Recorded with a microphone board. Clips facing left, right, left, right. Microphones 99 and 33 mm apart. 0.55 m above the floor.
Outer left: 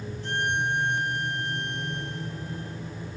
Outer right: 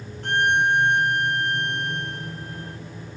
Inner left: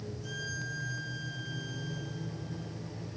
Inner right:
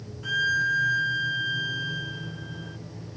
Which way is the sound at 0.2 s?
60° right (ahead or behind).